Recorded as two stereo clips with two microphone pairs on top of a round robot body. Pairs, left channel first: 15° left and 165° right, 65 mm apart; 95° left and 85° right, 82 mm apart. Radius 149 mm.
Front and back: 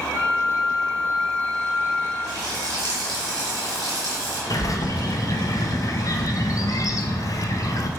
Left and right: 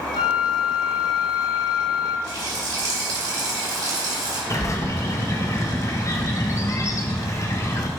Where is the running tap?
130° right, 1.9 m.